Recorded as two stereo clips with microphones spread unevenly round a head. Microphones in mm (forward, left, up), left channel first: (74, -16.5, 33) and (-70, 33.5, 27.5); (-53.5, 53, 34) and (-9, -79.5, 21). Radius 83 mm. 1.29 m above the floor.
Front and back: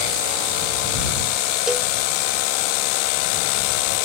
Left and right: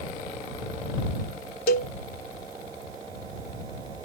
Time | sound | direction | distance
1.7 | a cowbell | 75° left | ?